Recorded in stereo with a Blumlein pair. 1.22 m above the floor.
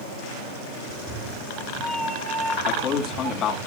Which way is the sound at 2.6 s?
30° left.